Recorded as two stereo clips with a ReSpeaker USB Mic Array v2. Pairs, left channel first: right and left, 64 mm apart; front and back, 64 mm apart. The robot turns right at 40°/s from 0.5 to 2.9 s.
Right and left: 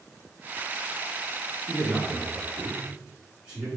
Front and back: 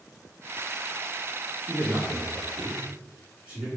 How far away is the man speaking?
About 1.2 m.